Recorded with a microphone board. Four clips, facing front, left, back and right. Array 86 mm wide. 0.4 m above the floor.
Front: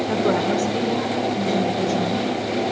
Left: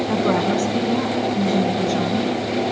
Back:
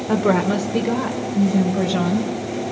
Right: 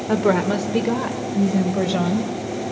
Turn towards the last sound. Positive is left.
turn(degrees=-120)